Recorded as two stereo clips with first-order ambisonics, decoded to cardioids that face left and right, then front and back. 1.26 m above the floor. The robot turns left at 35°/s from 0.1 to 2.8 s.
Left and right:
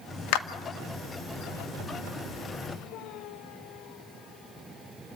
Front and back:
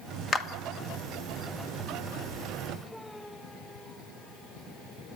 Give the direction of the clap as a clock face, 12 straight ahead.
10 o'clock.